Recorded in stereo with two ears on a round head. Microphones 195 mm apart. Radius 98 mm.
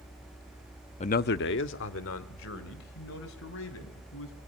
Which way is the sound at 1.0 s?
30° left (ahead or behind).